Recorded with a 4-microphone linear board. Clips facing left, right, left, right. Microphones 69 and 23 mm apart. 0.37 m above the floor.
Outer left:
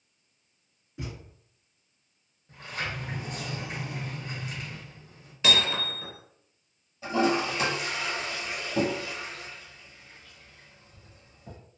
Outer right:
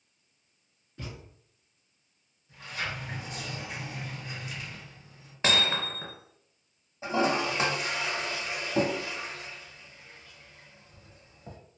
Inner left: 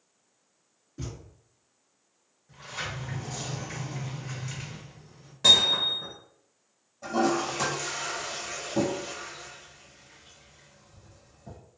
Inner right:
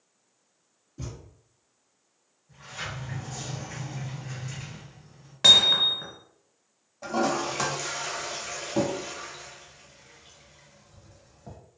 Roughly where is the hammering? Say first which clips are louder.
Even, inner right 3 dB; right.